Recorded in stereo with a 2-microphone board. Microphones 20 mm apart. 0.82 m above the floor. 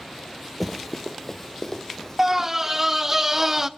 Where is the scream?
20° right (ahead or behind), 0.8 m.